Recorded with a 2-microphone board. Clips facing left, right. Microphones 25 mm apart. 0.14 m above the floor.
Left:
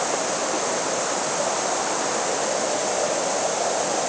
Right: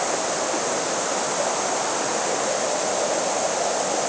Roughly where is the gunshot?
I don't hear a gunshot.